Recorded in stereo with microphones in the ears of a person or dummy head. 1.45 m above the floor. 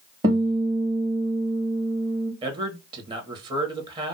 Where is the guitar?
20° right (ahead or behind), 0.9 m.